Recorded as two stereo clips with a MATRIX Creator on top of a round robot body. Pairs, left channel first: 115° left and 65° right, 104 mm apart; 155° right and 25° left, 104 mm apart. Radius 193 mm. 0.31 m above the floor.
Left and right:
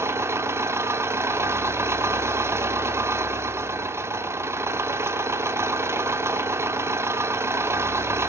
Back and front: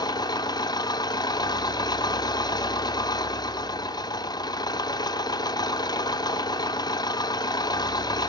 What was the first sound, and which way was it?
An engine running, 125° right.